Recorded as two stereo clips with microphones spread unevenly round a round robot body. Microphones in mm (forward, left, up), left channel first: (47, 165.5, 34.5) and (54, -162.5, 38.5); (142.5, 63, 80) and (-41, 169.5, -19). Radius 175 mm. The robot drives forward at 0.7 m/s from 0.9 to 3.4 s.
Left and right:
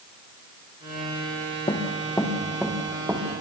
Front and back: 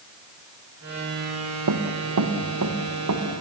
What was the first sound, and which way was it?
Running footsteps, 170° left.